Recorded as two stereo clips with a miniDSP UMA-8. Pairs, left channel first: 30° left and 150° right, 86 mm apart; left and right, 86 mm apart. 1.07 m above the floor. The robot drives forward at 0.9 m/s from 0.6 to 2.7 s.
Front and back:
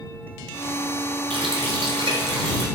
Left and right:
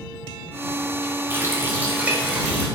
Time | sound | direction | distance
1.3 | a running tap | 155° right | 2.5 m